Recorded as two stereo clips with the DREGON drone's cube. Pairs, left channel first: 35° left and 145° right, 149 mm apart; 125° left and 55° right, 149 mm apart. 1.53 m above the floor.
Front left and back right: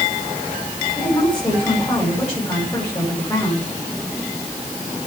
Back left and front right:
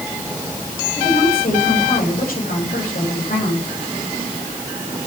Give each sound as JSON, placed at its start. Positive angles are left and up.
{"t": 1.0, "sound": "a woman speaking", "azimuth_deg": 105, "distance_m": 9.0}